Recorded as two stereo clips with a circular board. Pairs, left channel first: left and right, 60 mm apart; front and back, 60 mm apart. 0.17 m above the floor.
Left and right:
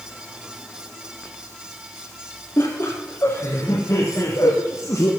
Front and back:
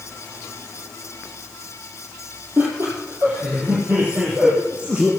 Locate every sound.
2.6 s laughter: 135° left, 4 m; by 5.1 s 110° left, 3.5 m